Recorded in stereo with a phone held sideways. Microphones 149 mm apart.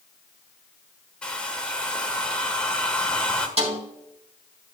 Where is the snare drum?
45° right (ahead or behind), 4 m.